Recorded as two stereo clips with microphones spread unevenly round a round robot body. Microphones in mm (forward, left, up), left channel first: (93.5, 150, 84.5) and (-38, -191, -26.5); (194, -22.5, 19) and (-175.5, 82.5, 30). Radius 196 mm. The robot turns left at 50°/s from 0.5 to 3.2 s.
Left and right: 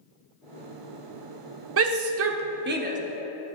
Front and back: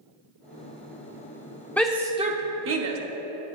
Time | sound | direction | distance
1.8 | a shout | 100° right | 0.9 m